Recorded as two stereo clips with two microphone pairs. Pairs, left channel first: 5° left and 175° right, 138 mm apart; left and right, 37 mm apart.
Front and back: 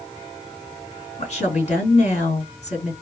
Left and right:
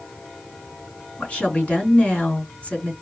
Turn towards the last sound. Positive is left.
turn(degrees=40)